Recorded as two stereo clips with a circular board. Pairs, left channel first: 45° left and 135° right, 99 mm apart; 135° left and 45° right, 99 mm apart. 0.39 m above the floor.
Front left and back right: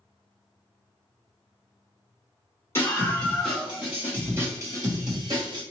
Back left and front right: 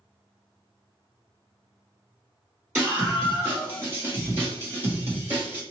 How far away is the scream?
About 1.5 m.